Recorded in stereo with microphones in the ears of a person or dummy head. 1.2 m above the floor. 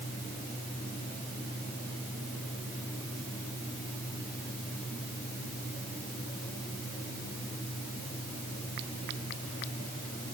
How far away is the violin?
No violin in this recording.